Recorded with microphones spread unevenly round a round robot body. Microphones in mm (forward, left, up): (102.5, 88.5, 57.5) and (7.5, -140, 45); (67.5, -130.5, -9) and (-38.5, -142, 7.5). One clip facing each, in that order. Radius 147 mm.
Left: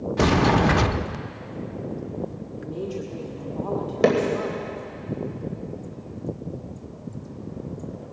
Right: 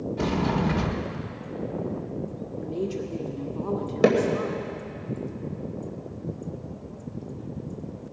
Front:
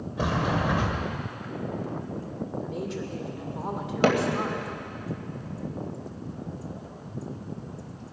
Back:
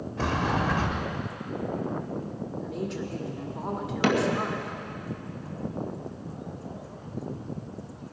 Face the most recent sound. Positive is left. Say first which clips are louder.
# even, front 2 dB
turn(degrees=-30)